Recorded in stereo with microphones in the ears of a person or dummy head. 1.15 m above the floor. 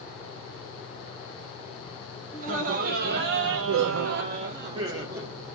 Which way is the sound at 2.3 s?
40° right (ahead or behind).